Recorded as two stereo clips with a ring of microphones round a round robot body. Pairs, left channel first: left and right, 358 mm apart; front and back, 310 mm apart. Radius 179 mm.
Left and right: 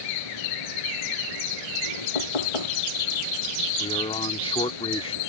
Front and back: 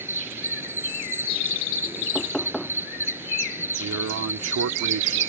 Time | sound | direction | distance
0.0 | an insect | 95° left | ?
2.1 | knocking | 90° left | ?
3.8 | a man speaking | 160° left | ?